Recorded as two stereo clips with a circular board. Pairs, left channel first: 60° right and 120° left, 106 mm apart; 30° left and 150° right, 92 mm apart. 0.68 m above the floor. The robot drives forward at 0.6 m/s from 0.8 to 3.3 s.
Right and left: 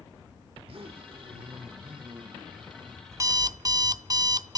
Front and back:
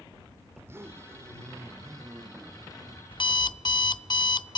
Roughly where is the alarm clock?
Ahead left.